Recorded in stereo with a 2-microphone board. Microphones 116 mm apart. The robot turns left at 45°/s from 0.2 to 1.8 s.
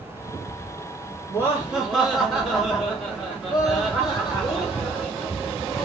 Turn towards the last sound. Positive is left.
turn(degrees=0)  # may be behind; listen again after turning